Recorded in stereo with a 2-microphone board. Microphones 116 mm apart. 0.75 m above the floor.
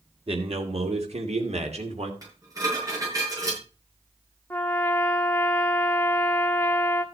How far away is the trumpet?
About 1.3 m.